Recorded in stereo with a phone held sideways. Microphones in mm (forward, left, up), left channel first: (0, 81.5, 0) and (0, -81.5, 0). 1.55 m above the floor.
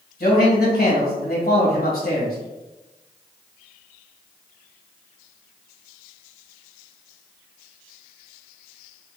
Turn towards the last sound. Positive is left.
turn(degrees=70)  # may be behind; listen again after turning